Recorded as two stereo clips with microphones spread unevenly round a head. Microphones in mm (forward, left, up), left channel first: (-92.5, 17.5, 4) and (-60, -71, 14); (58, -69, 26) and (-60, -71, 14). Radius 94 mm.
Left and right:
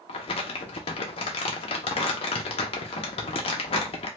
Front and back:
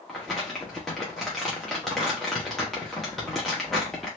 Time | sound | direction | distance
0.1 | crumpling | 85° left | 0.5 m